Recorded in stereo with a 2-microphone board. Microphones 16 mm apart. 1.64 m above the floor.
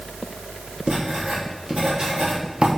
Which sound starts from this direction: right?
Writing, at 0.9 s.